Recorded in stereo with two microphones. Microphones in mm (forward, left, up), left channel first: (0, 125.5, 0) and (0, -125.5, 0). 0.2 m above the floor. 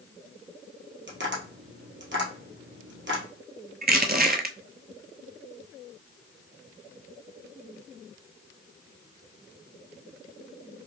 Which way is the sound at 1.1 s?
50° right (ahead or behind).